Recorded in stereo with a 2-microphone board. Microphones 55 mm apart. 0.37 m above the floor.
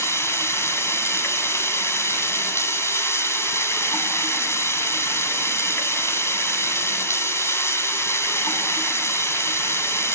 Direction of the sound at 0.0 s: 55° left (ahead or behind).